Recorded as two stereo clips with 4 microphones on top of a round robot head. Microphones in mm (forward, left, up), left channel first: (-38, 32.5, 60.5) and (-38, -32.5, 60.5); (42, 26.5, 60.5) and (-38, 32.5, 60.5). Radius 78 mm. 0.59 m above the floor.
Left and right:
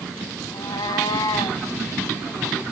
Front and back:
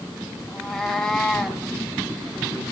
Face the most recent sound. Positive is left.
turn(degrees=80)